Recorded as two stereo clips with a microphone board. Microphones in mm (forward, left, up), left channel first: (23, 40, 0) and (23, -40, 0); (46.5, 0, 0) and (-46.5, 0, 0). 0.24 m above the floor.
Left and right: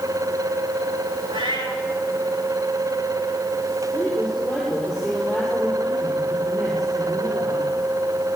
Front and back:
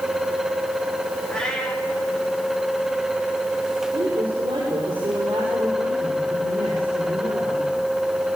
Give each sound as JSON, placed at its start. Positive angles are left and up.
{"t": 1.3, "sound": "a cat meowing", "azimuth_deg": -85, "distance_m": 6.0}
{"t": 3.9, "sound": "a woman speaking", "azimuth_deg": 180, "distance_m": 6.0}